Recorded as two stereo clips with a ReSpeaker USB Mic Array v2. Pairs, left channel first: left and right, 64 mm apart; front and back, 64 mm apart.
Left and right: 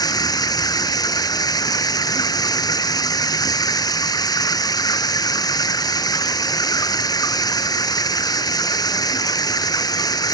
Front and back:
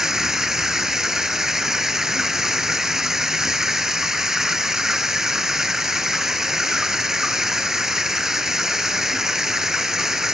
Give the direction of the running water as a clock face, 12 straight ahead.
9 o'clock.